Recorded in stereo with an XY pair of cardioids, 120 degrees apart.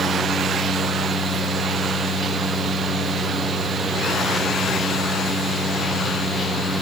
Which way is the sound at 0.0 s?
25° right.